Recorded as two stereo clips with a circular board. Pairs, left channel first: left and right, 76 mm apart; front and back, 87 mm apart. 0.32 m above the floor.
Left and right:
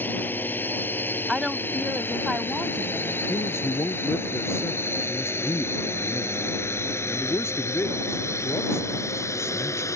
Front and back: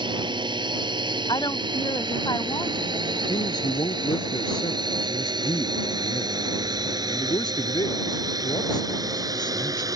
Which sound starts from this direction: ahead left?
A man speaking, at 3.3 s.